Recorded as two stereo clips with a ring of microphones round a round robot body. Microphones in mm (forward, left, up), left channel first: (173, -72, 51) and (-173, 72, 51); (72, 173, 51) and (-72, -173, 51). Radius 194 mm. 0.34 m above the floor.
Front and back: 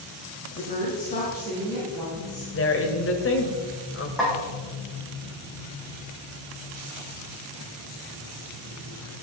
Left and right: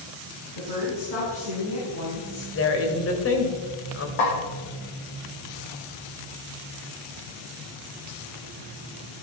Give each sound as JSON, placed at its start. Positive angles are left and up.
{"t": 0.6, "sound": "a woman speaking", "azimuth_deg": 45, "distance_m": 4.0}
{"t": 2.5, "sound": "a woman speaking", "azimuth_deg": 25, "distance_m": 1.6}
{"t": 4.2, "sound": "a snare drum", "azimuth_deg": 70, "distance_m": 5.0}